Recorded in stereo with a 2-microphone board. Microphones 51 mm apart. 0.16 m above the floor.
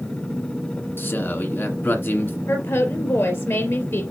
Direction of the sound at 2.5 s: 60° left (ahead or behind).